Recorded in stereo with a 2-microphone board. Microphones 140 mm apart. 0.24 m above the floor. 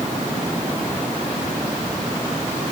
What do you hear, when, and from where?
Only background noise.